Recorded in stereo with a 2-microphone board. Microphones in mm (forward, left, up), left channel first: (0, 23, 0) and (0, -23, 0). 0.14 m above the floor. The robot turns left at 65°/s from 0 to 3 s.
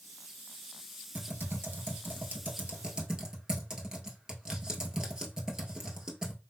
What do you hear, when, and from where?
1.1 s typing on a keyboard: 40° right (ahead or behind), 0.9 m; by 6.3 s 15° right (ahead or behind), 0.9 m